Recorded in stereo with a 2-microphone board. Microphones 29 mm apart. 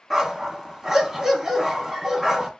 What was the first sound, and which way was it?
A dog barking, 15° right (ahead or behind).